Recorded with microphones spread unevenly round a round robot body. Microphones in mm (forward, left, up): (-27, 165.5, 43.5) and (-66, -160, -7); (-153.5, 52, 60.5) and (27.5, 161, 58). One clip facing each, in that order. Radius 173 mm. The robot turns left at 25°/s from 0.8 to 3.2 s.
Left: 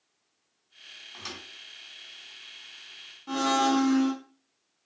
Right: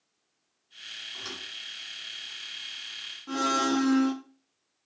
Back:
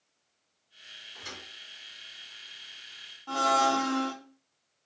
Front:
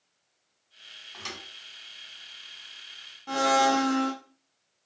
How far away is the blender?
About 0.8 m.